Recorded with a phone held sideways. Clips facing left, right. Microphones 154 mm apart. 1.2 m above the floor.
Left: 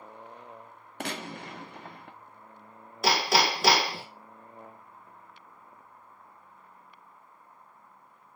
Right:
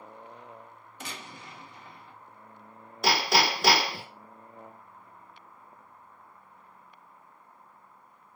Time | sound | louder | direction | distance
1.0 | a gunshot | left 8 dB | 65° left (ahead or behind) | 0.5 m
3.0 | hammering | even | centre (ahead or behind) | 1.0 m